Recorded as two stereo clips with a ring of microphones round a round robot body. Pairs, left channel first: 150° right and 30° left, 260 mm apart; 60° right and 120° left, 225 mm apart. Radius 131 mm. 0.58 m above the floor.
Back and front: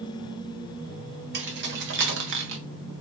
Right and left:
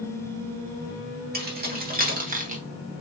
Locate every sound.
1.3 s keys jangling: 75° left, 1.6 m; by 2.6 s 65° left, 1.0 m